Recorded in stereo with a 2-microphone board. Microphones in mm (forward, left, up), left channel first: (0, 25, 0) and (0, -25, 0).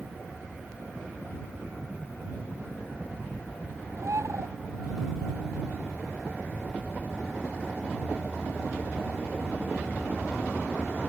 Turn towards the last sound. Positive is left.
turn(degrees=-80)